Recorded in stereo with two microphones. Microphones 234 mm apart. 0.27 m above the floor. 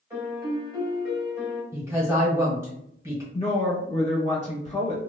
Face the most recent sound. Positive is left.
turn(degrees=30)  # may be behind; listen again after turning